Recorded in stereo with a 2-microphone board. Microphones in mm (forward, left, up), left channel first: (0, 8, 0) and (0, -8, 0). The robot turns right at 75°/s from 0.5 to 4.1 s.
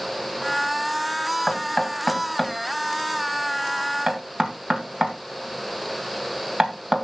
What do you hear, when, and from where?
1.5 s knocking: 60° left (ahead or behind), 2 m; by 7.0 s 50° right (ahead or behind), 2 m